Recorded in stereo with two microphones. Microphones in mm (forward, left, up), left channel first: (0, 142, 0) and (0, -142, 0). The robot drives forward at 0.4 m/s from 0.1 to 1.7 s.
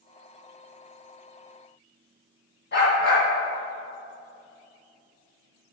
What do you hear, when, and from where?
2.7 s a dog barking: 45° left (ahead or behind), 2 m